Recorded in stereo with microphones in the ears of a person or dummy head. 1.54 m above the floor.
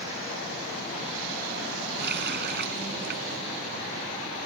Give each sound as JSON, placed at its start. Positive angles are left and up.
{"t": 2.0, "sound": "a running tap", "side_deg": -60}